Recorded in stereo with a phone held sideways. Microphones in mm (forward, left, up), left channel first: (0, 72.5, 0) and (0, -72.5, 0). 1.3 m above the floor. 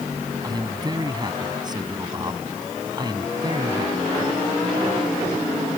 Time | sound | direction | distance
0.4 | a man speaking | 30° right (ahead or behind) | ?